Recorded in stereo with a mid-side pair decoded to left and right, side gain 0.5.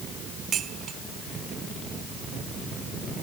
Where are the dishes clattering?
55° right.